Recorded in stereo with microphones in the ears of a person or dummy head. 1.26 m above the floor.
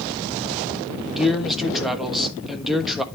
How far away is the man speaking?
About 1.2 m.